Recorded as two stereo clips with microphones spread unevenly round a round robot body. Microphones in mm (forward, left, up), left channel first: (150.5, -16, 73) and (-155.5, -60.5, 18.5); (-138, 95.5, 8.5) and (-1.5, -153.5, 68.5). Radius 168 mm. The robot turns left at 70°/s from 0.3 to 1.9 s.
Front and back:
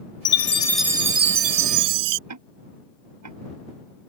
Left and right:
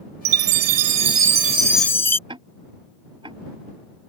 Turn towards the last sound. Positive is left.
turn(degrees=-135)